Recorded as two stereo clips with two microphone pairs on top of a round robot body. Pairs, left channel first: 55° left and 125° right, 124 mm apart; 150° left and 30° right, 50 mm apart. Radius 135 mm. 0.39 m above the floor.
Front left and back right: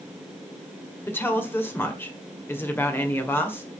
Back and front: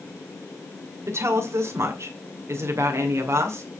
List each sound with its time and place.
1.1 s a woman speaking: 20° right, 2.0 m